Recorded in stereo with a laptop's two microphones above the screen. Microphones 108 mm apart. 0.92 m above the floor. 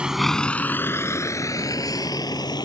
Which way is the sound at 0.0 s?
10° right (ahead or behind).